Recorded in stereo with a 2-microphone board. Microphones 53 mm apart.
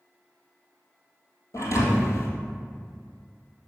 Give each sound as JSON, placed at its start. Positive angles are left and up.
{"t": 1.5, "sound": "a thud", "side_deg": 70, "distance_m": 1.4}